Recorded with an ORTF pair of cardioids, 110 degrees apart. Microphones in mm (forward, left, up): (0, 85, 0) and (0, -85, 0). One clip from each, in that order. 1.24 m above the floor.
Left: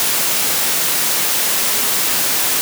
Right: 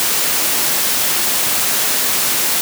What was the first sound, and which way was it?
Only background noise.